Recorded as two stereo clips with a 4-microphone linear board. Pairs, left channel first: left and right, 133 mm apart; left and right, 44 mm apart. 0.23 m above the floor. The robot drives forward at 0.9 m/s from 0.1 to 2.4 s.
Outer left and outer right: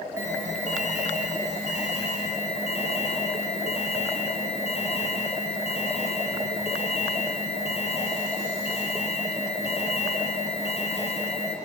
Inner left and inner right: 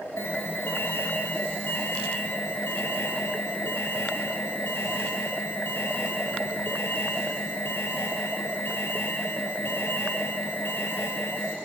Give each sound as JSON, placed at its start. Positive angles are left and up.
{"t": 0.2, "sound": "an alarm", "side_deg": 60, "distance_m": 3.5}